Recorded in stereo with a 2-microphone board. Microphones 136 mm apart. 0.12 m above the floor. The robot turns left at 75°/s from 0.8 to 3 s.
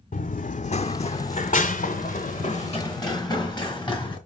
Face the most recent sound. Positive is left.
turn(degrees=35)  # may be behind; listen again after turning